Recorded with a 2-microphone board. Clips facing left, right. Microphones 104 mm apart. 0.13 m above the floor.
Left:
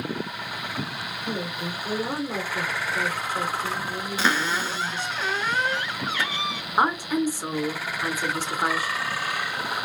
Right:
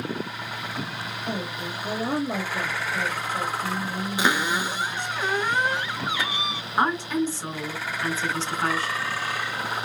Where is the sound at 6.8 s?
10° left (ahead or behind), 1.4 m.